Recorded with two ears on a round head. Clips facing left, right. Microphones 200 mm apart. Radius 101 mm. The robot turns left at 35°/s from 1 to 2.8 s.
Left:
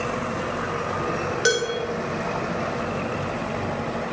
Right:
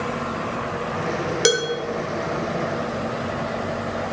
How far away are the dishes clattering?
About 1.2 m.